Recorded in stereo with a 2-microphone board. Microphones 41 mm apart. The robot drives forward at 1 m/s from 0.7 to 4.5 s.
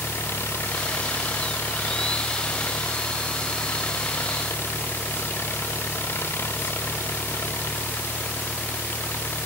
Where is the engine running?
85° left; by 9.5 s 70° left (ahead or behind).